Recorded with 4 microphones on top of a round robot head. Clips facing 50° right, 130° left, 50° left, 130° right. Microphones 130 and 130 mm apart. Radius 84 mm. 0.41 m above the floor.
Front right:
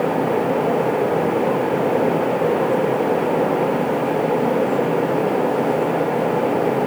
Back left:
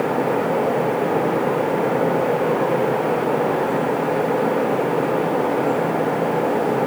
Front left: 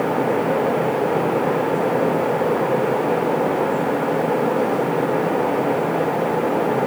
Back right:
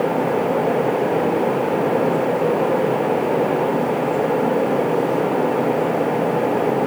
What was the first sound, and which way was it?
Only background noise.